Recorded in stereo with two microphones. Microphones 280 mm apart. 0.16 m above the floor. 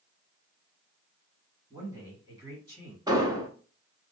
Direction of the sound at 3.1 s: 15° right (ahead or behind).